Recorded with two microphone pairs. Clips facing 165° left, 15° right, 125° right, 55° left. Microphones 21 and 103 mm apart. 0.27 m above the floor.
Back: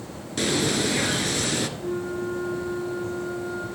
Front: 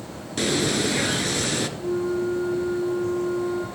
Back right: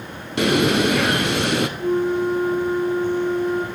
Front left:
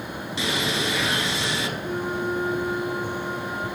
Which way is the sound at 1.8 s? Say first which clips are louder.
Front 4 dB, back right 8 dB; 110° right.